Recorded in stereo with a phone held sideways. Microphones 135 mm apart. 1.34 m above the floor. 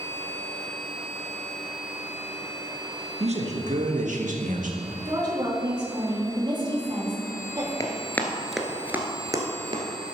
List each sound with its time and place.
3.2 s a man speaking: 55° right (ahead or behind), 1.4 m; by 5.0 s 80° right, 2.0 m
5.0 s a woman speaking: 35° right (ahead or behind), 3 m
7.8 s running footsteps: 25° left (ahead or behind), 1.6 m; by 9.8 s 40° right (ahead or behind), 1.9 m